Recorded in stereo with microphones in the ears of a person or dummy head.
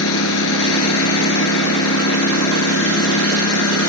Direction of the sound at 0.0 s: 80° left.